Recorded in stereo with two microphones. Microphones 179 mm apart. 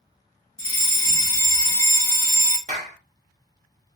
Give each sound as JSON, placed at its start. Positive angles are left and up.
{"t": 0.6, "sound": "a fire alarm", "side_deg": 20, "distance_m": 1.7}
{"t": 2.7, "sound": "a clap", "side_deg": -40, "distance_m": 0.8}